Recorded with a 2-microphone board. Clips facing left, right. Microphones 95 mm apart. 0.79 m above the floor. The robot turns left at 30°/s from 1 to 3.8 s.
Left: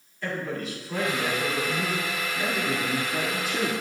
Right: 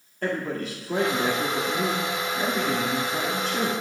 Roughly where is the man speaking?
Behind right.